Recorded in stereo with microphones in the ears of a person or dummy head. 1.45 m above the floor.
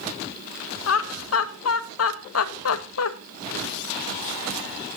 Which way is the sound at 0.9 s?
75° left (ahead or behind).